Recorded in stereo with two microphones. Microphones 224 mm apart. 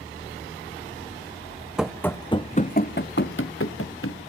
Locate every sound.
1.8 s running footsteps: 5° right (ahead or behind), 0.7 m; by 4.2 s 75° left (ahead or behind), 1.3 m